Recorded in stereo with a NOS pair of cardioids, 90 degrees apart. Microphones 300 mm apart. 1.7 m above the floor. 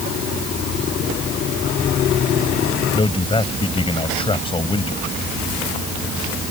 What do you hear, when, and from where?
2.9 s a man speaking: 15° left